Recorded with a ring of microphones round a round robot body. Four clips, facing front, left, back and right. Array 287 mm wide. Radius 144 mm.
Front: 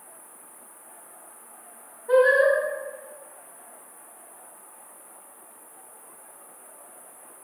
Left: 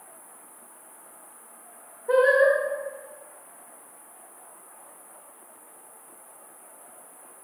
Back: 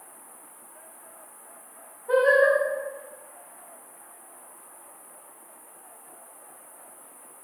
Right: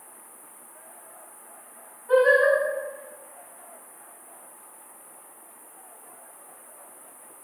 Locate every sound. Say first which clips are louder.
0.0 s an insect: even, even; 55° right, 1.0 m
2.1 s singing: even, front 1 dB; 80° left, 0.8 m